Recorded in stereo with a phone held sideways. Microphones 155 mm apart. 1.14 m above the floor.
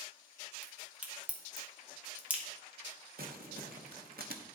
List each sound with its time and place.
0.6 s a crack: 10° right (ahead or behind), 1.2 m
3.2 s crumpling: 75° right (ahead or behind), 0.9 m